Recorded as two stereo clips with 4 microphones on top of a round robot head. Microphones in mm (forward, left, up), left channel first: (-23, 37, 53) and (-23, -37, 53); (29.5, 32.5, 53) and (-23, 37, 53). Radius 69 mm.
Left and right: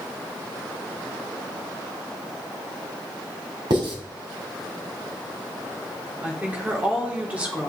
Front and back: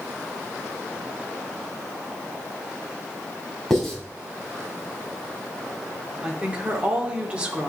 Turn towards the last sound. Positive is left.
turn(degrees=-145)